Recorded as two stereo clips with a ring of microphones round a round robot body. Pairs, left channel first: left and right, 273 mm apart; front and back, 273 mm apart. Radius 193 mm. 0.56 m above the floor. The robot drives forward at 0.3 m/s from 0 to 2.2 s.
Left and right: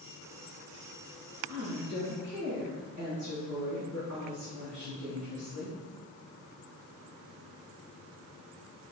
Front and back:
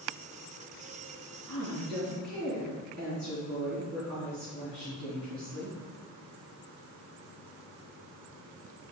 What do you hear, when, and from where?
1.5 s a woman speaking: 135° right, 4.5 m